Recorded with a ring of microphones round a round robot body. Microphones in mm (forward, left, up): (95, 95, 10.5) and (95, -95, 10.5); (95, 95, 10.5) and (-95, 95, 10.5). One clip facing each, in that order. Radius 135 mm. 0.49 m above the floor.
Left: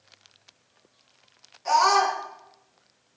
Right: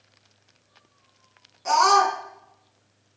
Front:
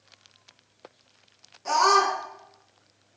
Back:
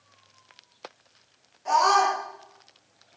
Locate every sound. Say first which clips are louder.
1.6 s a scream: right 2 dB, back 1 dB; 60° right, 4 m